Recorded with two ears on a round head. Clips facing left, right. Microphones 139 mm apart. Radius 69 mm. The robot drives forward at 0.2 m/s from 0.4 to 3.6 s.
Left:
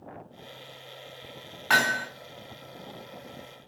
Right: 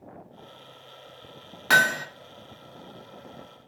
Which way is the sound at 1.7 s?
50° right (ahead or behind).